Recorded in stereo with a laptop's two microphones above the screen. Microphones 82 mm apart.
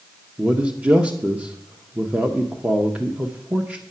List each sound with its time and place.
0.4 s a man speaking: 15° right (ahead or behind), 0.8 m